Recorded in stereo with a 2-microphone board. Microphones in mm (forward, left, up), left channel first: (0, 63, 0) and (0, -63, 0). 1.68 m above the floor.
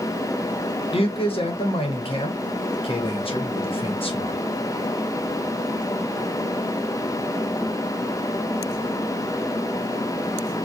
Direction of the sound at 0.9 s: 45° left (ahead or behind).